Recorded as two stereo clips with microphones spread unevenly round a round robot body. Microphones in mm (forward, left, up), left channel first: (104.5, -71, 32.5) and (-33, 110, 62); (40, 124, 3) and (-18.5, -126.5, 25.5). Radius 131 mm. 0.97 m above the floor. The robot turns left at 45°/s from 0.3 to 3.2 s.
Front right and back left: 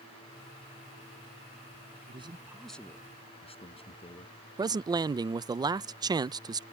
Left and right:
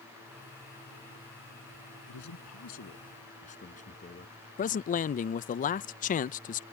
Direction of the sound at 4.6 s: 55° left.